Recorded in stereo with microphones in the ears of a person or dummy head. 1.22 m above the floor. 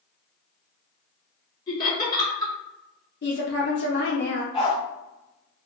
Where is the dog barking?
30° left (ahead or behind), 1.4 m.